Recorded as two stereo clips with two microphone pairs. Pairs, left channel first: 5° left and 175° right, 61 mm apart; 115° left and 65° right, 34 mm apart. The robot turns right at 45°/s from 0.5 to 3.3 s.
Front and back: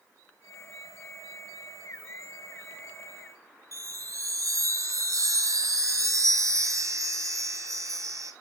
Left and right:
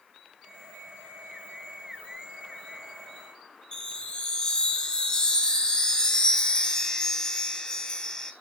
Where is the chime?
Straight behind, 1.1 m.